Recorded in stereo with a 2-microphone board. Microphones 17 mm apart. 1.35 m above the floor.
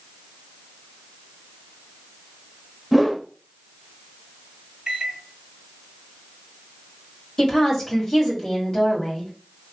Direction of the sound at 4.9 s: 25° right (ahead or behind).